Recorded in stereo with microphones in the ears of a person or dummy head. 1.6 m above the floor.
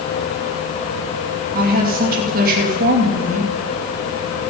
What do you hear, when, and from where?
1.5 s a woman speaking: 50° right (ahead or behind), 3 m